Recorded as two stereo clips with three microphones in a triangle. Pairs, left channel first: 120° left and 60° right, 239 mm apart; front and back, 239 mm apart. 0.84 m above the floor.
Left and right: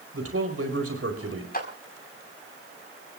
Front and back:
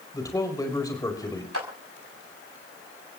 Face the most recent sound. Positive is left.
turn(degrees=170)